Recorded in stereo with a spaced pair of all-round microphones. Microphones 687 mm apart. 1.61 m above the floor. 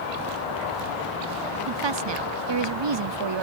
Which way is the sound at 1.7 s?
40° right (ahead or behind).